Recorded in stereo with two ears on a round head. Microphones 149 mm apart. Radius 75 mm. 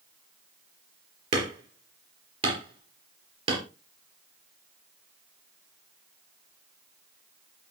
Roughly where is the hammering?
Right.